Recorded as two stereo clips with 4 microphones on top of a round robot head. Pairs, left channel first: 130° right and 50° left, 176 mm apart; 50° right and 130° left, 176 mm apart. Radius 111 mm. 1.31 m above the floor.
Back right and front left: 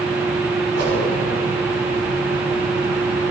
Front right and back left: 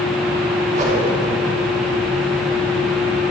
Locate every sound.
0.7 s a whoosh: 80° left, 3.5 m